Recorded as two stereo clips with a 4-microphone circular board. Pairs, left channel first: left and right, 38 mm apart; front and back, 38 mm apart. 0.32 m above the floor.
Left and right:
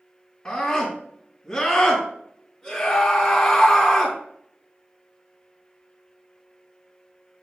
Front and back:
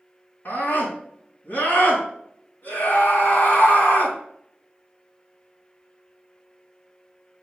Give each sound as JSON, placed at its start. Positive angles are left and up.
{"t": 0.5, "sound": "a scream", "azimuth_deg": 15, "distance_m": 4.0}